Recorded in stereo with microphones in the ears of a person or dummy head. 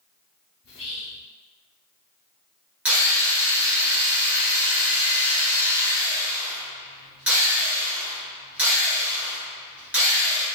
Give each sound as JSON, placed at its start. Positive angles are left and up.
{"t": 0.6, "sound": "whispering", "side_deg": 70, "distance_m": 0.9}
{"t": 2.9, "sound": "a drill", "side_deg": -5, "distance_m": 1.6}